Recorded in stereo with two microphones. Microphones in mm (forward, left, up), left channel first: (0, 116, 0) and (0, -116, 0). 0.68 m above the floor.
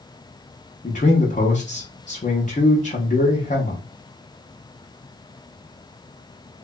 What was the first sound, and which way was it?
A man speaking, 35° left (ahead or behind).